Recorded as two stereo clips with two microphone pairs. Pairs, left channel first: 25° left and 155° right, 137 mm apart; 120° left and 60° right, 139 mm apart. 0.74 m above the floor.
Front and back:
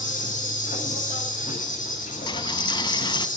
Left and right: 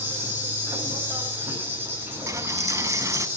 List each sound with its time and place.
0.0 s an insect: 15° left, 7.5 m
2.3 s a dropped coin: 10° right, 0.7 m